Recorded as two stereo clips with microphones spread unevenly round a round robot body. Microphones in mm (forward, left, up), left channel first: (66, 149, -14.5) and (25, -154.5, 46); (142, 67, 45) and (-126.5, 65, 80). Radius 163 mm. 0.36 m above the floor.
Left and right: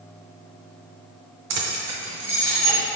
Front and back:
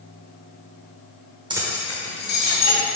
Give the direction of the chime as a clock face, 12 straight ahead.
I don't hear a chime.